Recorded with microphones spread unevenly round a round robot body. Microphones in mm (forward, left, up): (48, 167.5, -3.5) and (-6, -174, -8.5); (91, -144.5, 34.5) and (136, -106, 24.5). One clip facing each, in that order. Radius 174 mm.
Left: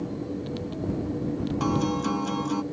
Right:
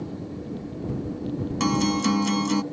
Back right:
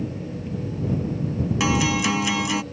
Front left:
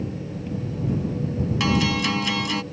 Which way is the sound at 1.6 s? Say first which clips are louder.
Right 5 dB, back right 1 dB; 60° right.